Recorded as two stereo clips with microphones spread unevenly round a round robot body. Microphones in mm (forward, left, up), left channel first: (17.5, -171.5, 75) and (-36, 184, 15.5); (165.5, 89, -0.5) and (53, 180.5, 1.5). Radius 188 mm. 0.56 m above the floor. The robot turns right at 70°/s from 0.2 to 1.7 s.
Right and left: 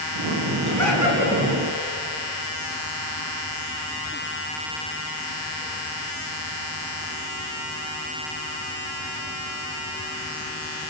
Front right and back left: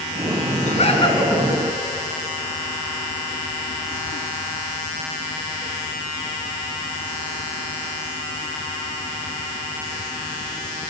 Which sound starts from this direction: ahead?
Laughter, at 0.6 s.